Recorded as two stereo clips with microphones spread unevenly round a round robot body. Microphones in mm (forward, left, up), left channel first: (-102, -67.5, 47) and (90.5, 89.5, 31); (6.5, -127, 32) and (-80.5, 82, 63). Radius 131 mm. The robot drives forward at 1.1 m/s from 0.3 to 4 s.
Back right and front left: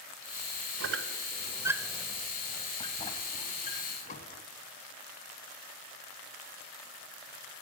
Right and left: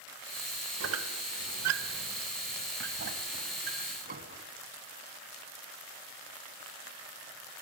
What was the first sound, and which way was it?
A squeak, 75° left.